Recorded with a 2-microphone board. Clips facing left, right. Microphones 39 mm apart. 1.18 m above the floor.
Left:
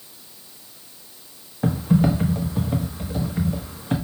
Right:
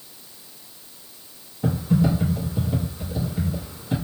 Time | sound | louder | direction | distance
1.6 | typing on a keyboard | left 2 dB | 55° left (ahead or behind) | 0.8 m